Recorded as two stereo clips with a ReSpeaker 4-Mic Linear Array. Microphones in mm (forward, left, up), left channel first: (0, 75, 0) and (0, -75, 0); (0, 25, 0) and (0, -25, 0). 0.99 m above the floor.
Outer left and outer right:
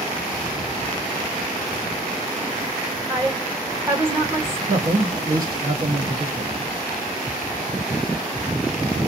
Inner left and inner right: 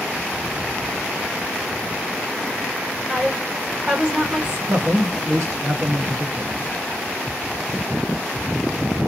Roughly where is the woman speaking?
Centre.